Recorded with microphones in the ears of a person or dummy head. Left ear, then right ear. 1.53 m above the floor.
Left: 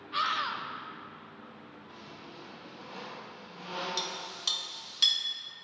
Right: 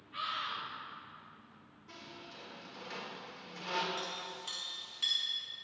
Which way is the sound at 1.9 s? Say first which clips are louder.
Right 1 dB; 60° right (ahead or behind).